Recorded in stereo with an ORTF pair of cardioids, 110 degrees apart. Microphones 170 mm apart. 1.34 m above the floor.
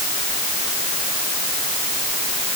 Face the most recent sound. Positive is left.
No sound to turn to.